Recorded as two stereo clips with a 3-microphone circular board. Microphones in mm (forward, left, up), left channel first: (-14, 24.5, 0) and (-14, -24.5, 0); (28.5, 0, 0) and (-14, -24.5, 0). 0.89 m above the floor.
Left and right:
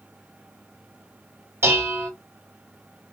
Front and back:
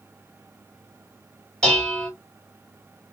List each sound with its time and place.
1.6 s dishes clattering: 50° right, 2.5 m